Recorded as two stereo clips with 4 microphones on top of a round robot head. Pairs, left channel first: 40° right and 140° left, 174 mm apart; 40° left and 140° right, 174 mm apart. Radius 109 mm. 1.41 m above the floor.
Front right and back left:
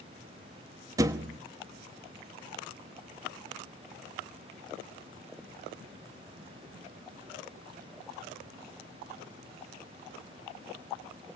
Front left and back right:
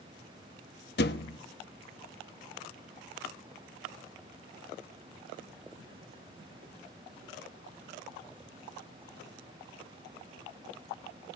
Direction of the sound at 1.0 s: 70° left.